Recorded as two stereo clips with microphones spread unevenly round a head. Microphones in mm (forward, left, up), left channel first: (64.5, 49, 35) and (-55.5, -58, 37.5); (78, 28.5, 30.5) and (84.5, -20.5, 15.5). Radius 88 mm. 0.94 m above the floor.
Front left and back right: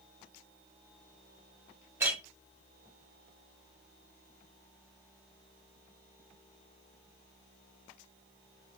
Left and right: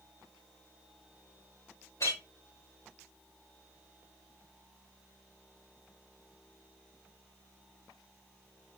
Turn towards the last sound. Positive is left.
turn(degrees=145)